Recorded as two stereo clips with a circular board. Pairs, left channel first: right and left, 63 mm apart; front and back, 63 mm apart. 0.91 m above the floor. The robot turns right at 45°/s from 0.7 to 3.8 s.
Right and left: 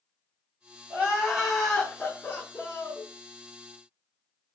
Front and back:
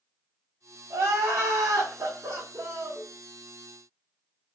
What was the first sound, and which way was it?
Crying, 150° left.